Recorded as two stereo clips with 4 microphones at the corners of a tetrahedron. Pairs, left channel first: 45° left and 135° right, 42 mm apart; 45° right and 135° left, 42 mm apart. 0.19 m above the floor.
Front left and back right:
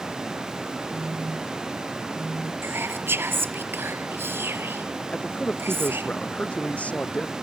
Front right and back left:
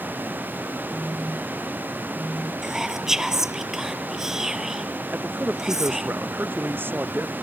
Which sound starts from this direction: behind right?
Whispering, at 2.6 s.